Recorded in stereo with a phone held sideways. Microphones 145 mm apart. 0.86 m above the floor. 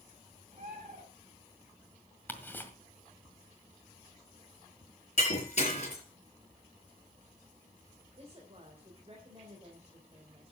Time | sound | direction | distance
0.5 | a bird | 50° right (ahead or behind) | 5 m
2.3 | ticking | 10° left (ahead or behind) | 1.7 m
5.2 | breaking glass | 45° left (ahead or behind) | 5.5 m
8.2 | a woman speaking | 40° right (ahead or behind) | 3.5 m